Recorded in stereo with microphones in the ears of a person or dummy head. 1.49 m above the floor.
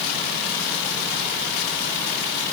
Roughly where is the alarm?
I don't hear an alarm.